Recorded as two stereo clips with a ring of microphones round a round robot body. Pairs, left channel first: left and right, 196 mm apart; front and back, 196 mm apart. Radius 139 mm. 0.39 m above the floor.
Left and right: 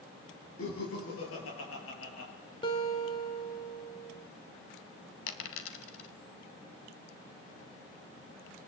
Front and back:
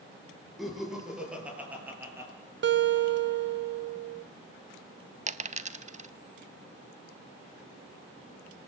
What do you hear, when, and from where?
0.6 s laughter: 90° left, 7.5 m; by 2.3 s 105° left, 6.5 m
2.6 s a guitar: 160° left, 1.0 m
5.3 s a dropped coin: 125° left, 1.2 m